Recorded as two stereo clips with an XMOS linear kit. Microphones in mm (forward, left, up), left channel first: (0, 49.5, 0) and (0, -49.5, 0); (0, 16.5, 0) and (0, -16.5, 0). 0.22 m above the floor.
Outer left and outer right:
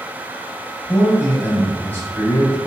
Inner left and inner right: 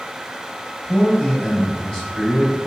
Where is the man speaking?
20° left (ahead or behind), 1.1 m.